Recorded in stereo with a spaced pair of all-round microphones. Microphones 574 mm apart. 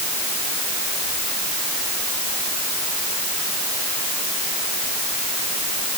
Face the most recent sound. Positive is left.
No sound to turn to.